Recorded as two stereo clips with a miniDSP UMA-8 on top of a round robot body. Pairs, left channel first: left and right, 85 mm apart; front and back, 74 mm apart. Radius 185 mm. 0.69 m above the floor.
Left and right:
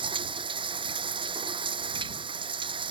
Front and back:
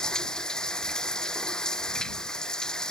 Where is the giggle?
I don't hear a giggle.